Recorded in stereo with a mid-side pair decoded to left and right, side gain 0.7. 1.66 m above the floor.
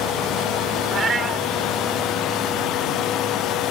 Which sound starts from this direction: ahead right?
A cat meowing, at 0.9 s.